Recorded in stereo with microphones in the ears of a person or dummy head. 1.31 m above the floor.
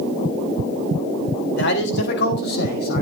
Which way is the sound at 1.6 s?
65° left (ahead or behind).